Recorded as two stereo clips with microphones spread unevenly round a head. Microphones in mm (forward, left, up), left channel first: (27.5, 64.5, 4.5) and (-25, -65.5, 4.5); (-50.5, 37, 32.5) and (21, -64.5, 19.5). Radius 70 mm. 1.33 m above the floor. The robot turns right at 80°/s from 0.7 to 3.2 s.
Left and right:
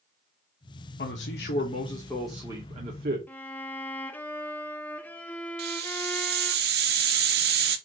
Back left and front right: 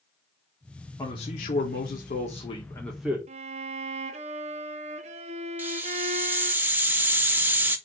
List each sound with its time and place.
1.0 s a man speaking: 55° left, 1.4 m; by 3.2 s 130° right, 1.4 m
3.3 s a violin: 10° right, 0.8 m
5.6 s a hiss: 130° right, 1.3 m